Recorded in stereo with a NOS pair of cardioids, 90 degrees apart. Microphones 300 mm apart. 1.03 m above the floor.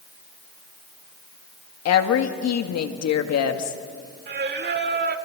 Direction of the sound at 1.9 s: 65° left.